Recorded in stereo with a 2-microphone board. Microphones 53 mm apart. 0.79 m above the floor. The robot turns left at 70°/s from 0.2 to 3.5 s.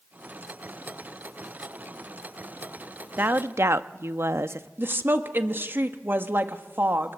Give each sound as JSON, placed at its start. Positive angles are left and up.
{"t": 3.2, "sound": "a woman speaking", "side_deg": -35, "distance_m": 0.8}
{"t": 4.8, "sound": "a woman speaking", "side_deg": -45, "distance_m": 1.3}